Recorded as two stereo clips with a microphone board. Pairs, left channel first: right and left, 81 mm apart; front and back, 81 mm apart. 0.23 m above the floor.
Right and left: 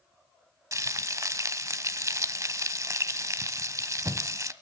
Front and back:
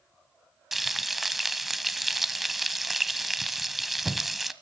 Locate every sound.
0.7 s frying: 95° left, 0.9 m